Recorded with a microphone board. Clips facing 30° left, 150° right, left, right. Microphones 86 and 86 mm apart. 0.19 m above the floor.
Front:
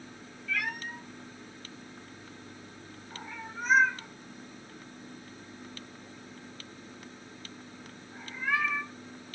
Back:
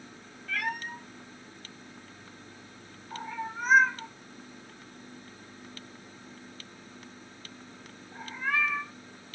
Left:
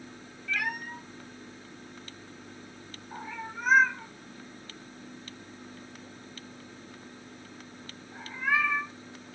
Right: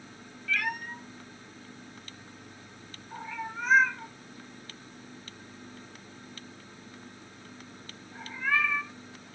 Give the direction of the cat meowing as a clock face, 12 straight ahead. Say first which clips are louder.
Back 1 dB, right 1 dB; 6 o'clock.